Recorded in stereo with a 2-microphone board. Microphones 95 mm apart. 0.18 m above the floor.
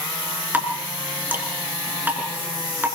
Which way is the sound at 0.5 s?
20° right (ahead or behind).